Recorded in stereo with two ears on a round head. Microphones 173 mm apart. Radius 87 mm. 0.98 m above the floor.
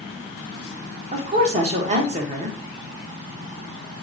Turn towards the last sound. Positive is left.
turn(degrees=-35)  # may be behind; listen again after turning